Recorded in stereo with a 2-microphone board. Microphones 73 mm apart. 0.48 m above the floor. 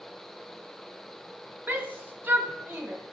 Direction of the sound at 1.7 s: 30° right (ahead or behind).